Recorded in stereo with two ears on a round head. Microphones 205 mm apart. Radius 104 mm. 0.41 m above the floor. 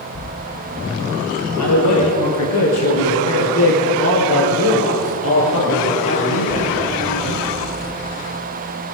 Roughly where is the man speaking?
Left.